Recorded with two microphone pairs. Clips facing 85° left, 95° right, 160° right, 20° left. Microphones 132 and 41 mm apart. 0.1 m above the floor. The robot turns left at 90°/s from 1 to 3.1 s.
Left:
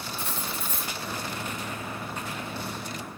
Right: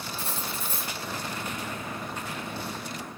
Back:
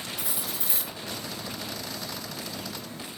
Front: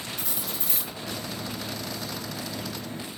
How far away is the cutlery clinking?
About 1.1 m.